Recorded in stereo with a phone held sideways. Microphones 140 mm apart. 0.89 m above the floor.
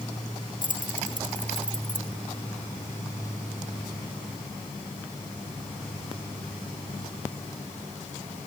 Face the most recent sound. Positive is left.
turn(degrees=65)  # may be behind; listen again after turning